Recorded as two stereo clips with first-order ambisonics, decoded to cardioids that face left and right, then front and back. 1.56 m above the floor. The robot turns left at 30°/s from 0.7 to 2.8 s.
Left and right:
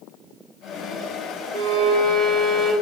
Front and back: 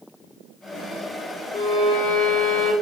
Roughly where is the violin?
Behind right.